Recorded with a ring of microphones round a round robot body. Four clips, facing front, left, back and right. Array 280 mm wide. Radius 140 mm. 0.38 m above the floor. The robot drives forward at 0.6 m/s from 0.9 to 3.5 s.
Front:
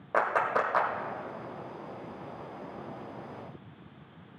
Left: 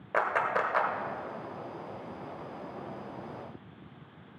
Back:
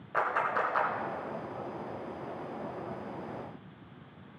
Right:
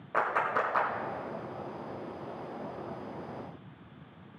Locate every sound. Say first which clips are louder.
0.1 s a clap: left 1 dB, front 3 dB; 25° left, 1.7 m